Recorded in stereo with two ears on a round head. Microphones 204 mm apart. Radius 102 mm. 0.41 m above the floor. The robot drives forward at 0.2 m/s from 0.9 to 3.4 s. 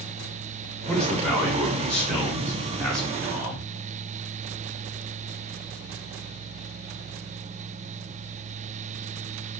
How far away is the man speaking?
About 1.4 m.